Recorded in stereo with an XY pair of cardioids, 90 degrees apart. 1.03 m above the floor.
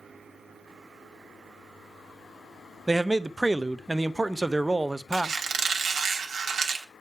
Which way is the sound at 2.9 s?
20° right.